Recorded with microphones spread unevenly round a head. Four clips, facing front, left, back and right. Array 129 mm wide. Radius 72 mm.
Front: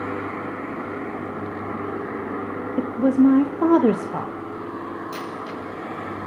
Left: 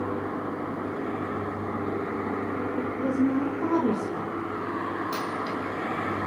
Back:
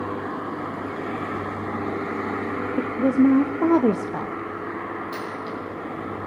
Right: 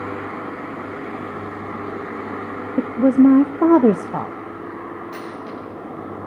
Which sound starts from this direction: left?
A dropped coin, at 5.1 s.